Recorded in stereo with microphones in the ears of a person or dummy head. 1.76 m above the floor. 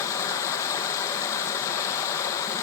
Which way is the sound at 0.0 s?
20° left (ahead or behind).